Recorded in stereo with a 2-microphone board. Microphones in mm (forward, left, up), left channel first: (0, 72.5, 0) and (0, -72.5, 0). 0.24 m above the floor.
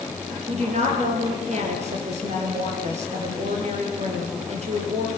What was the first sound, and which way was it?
A woman speaking, 50° right (ahead or behind).